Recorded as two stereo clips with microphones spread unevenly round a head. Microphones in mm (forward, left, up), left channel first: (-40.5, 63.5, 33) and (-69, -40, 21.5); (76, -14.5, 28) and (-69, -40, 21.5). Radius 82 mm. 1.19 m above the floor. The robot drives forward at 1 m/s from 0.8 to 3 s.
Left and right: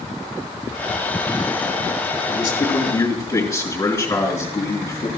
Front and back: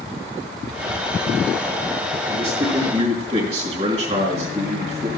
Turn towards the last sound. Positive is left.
turn(degrees=140)